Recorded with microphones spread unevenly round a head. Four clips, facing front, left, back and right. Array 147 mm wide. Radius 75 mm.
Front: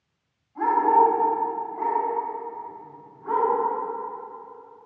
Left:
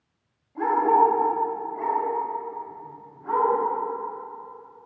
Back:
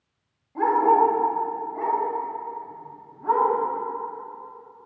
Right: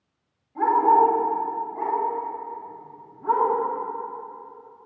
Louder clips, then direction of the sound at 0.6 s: Right 2 dB, even; 175° left.